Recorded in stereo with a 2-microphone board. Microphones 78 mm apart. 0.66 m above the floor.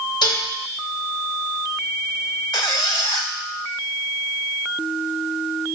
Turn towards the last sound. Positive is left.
turn(degrees=75)  # may be behind; listen again after turning